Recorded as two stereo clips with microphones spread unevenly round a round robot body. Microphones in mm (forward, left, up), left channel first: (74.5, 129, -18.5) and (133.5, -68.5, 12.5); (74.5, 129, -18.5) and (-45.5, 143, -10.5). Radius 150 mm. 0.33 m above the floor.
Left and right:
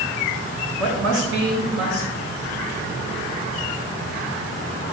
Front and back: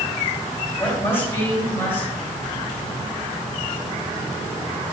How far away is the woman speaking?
About 3.5 m.